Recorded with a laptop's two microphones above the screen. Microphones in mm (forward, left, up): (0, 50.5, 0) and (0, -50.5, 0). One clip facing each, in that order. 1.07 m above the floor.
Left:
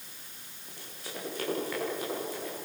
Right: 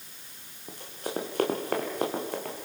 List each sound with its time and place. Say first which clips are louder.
0.7 s running footsteps: right 9 dB; 40° right (ahead or behind), 3.5 m; by 2.6 s 55° right (ahead or behind), 5 m